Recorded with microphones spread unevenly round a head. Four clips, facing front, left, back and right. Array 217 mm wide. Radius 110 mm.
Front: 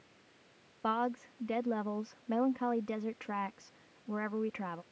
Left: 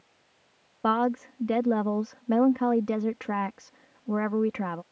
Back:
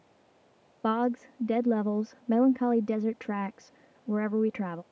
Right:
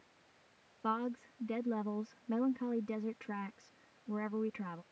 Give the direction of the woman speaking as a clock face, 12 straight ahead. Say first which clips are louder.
Left 12 dB, back 6 dB; 8 o'clock.